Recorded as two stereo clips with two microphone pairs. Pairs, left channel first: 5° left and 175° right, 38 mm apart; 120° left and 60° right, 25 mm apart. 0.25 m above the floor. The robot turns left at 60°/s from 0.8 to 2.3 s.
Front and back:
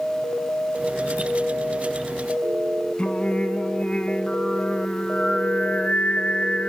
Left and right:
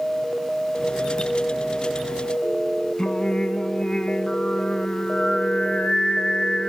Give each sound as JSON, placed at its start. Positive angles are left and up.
{"t": 3.0, "sound": "singing", "azimuth_deg": 65, "distance_m": 0.5}